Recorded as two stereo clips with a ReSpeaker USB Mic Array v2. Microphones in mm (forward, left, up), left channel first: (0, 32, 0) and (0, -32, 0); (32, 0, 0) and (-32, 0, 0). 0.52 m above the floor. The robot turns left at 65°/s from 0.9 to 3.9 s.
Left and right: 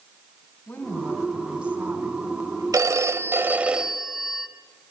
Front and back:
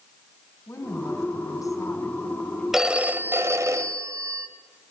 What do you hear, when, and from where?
0.7 s a woman speaking: 30° left, 3.5 m; by 2.6 s 85° right, 3.5 m
2.7 s a phone ringing: 95° right, 1.3 m; by 4.5 s 175° right, 1.3 m